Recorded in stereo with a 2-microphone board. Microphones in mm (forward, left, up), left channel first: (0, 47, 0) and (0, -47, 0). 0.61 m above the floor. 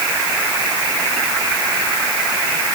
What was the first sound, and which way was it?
Only background noise.